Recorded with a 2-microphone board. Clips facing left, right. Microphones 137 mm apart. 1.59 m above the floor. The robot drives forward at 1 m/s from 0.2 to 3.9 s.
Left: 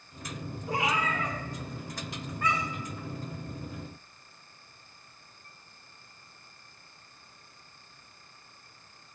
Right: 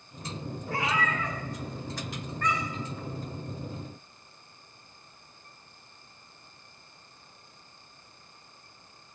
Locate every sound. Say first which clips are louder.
0.7 s a cat meowing: even; 15° left (ahead or behind), 1.4 m; by 2.9 s 5° left (ahead or behind), 3 m